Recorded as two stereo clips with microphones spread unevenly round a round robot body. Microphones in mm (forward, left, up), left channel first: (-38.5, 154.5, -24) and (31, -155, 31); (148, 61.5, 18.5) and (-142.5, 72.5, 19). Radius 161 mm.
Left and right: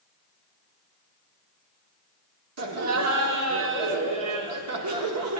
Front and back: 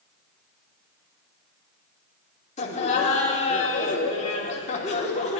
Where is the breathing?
No breathing in this recording.